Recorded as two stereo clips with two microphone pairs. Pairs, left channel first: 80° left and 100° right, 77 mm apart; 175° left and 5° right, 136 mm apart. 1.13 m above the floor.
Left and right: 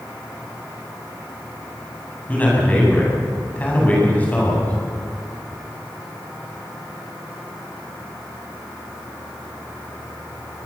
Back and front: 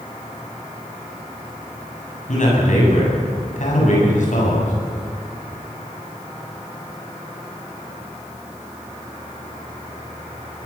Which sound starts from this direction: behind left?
A man speaking, at 2.3 s.